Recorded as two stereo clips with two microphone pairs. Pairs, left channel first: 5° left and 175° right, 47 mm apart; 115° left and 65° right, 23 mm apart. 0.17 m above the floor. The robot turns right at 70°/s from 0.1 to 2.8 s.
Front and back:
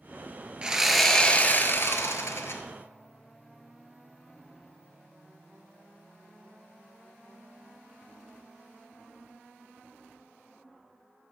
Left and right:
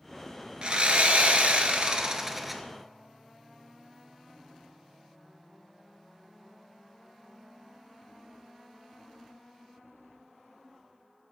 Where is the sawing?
110° right, 0.9 m; by 2.6 s 30° left, 0.9 m.